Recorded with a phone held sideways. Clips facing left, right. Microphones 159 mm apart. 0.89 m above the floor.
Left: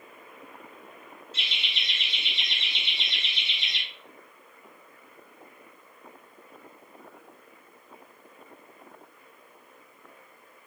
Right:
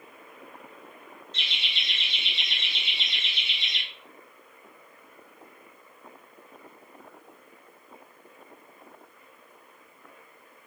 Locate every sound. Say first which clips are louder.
1.3 s laughter: even; 5° left (ahead or behind), 0.9 m